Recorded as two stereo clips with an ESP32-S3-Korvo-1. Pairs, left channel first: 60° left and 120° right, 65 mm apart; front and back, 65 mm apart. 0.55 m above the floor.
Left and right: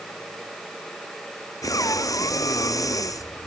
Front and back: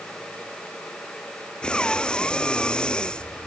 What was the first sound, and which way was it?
Breathing, 75° left.